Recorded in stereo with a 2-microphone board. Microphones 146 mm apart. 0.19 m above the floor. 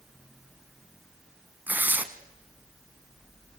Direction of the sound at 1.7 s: 10° right (ahead or behind).